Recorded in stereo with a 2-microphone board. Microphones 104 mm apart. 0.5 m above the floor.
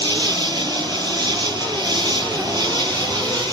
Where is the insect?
45° right (ahead or behind).